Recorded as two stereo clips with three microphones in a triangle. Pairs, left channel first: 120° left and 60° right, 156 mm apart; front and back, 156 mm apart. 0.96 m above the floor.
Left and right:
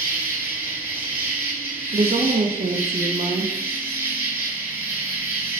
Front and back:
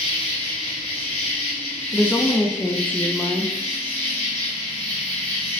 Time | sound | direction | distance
0.0 | an insect | 10° left | 1.2 m
1.9 | a woman speaking | 80° right | 0.6 m